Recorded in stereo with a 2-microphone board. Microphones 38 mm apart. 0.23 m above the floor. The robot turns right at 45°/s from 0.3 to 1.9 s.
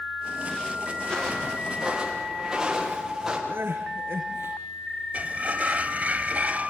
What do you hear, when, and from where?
1.0 s footsteps: 20° left (ahead or behind), 9 m; by 3.4 s 5° right (ahead or behind), 8 m
3.5 s crying: 80° right, 5.5 m
5.1 s a sliding door: 45° right (ahead or behind), 1.0 m